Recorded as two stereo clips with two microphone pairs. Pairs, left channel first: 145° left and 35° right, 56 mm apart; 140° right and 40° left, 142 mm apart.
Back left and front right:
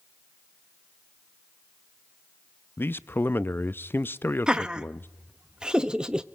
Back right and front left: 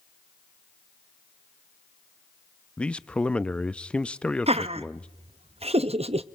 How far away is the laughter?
About 0.6 m.